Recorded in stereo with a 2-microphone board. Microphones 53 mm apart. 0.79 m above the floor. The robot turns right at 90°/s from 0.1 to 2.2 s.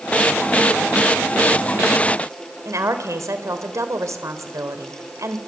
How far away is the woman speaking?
About 3.5 m.